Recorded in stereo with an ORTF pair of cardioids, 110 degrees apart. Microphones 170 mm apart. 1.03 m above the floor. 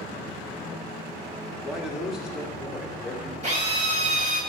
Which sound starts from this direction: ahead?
A man speaking, at 1.6 s.